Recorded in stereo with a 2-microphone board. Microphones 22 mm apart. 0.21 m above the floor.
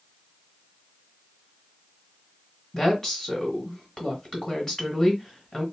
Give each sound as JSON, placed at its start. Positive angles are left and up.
{"t": 2.7, "sound": "a woman speaking", "side_deg": 20, "distance_m": 1.8}